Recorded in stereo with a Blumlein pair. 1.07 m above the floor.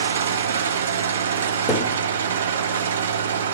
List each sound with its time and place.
0.0 s an engine running: 60° right, 1.3 m
1.7 s a thud: 15° left, 2.5 m